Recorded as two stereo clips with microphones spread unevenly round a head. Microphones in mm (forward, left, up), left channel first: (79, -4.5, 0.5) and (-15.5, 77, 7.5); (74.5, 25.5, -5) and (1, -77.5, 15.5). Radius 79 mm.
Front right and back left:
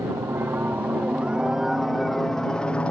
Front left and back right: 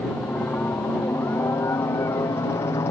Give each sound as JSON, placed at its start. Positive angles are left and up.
{"t": 0.0, "sound": "a helicopter", "azimuth_deg": 115}